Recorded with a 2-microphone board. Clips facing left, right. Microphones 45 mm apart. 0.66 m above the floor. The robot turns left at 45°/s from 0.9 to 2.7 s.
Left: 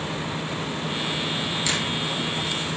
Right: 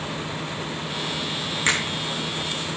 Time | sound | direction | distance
1.6 | a finger snap | 45° right (ahead or behind) | 4.5 m